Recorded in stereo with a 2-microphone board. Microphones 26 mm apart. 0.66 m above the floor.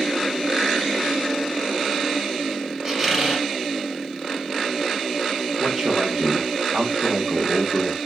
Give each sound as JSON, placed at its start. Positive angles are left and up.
{"t": 2.9, "sound": "a squeak", "side_deg": -20, "distance_m": 1.5}
{"t": 5.6, "sound": "a man speaking", "side_deg": -50, "distance_m": 1.6}